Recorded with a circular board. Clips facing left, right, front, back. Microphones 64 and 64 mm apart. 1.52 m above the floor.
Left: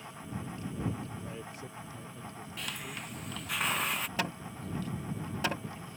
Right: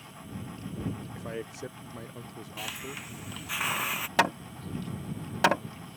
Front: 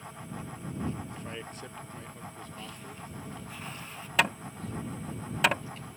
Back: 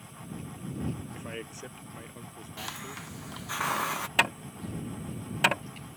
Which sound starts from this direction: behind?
A hiss, at 2.6 s.